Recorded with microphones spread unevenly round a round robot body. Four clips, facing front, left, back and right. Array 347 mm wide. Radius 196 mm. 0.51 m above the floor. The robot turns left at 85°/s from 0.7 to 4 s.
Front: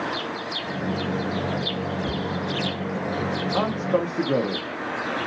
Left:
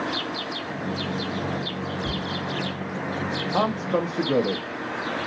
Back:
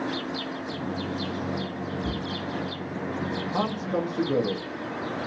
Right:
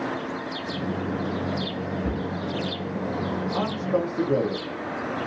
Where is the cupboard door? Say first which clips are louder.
Right 2 dB, front 3 dB; 135° right, 0.7 m; by 2.2 s 155° right, 0.7 m.